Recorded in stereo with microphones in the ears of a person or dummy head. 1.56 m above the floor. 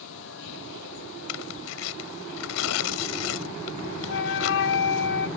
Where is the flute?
60° left (ahead or behind).